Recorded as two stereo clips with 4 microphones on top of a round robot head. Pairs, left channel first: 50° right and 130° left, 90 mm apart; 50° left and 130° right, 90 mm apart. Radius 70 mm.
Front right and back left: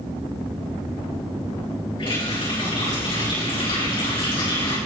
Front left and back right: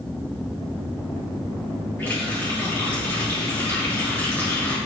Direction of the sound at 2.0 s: 20° right.